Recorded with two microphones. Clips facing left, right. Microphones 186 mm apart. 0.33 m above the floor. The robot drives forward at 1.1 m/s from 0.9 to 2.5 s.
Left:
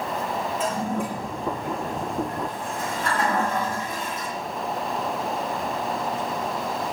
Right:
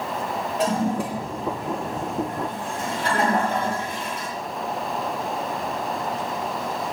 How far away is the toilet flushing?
About 8 m.